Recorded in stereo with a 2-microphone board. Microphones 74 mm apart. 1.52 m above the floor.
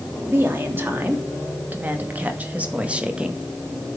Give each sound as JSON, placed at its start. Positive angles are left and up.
{"t": 0.2, "sound": "a woman speaking", "side_deg": -35, "distance_m": 3.0}